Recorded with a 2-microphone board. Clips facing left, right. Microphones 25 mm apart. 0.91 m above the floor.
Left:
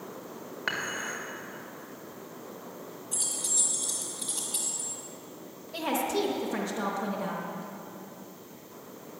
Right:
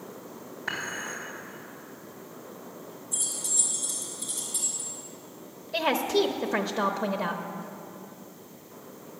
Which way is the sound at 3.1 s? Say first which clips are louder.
Right 1 dB; 75° left (ahead or behind).